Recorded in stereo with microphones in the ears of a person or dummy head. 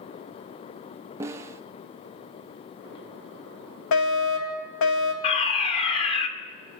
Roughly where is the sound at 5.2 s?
Left.